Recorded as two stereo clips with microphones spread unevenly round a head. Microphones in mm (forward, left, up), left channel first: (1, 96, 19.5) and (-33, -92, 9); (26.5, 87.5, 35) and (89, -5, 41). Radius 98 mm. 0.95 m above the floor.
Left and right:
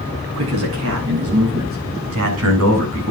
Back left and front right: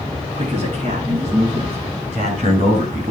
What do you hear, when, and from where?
0.3 s a man speaking: 115° right, 9 m; by 3.1 s 105° right, 7.5 m